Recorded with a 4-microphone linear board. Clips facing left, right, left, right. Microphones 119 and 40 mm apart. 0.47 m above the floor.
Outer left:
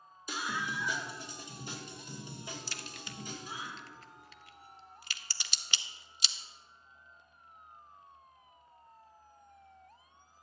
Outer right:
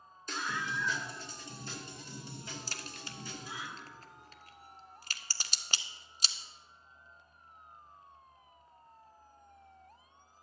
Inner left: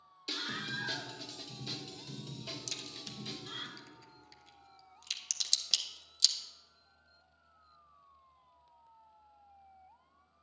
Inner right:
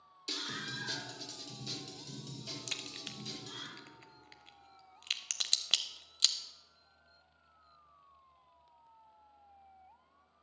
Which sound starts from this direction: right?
A crack, at 2.7 s.